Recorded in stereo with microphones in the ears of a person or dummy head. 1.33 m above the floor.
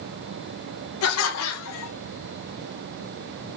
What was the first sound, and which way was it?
Laughter, 75° left (ahead or behind).